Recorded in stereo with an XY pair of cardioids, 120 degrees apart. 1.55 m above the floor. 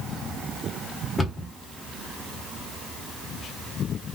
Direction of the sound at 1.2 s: 15° left.